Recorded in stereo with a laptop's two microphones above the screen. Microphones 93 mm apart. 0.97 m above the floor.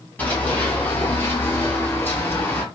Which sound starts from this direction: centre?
Running footsteps, at 0.2 s.